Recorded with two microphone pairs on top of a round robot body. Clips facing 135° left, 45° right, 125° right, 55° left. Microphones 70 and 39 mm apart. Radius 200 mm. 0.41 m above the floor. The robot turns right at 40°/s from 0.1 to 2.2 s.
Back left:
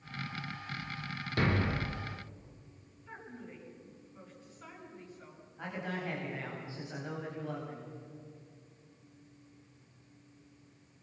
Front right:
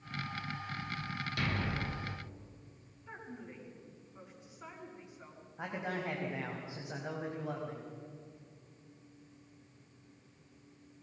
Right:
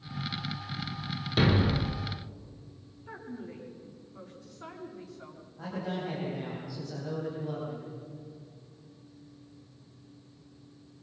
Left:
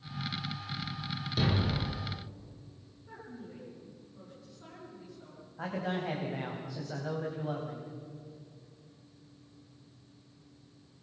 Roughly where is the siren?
No siren in this recording.